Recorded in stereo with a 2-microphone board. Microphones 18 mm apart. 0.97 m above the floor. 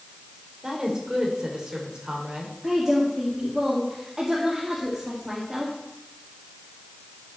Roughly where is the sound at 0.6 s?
Right.